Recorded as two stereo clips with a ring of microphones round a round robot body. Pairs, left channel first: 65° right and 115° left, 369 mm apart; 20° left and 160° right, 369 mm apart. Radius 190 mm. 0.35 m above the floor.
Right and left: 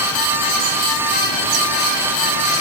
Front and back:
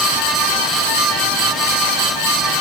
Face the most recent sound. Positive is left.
No sound to turn to.